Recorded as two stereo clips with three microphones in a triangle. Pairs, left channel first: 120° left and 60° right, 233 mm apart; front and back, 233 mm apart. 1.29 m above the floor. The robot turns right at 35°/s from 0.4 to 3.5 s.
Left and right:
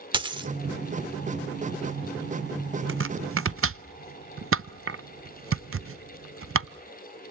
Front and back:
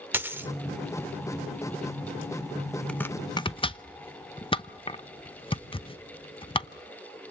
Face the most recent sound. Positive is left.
turn(degrees=-65)